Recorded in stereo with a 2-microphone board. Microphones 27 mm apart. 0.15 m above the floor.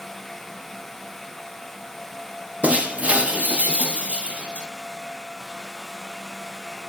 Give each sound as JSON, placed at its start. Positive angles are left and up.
{"t": 2.6, "sound": "breaking glass", "side_deg": -60, "distance_m": 2.5}